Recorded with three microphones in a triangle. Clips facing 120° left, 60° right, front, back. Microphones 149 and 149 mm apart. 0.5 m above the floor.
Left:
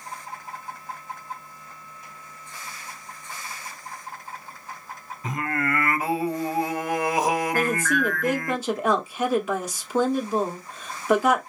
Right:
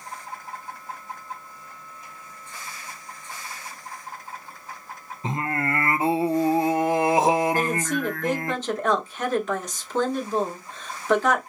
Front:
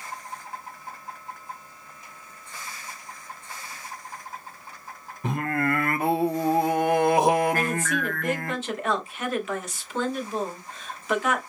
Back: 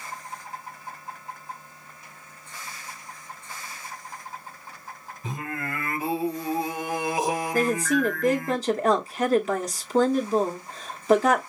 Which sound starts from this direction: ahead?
Singing, at 5.2 s.